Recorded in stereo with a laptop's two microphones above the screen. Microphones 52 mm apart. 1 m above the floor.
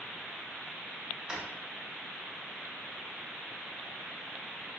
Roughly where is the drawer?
Right.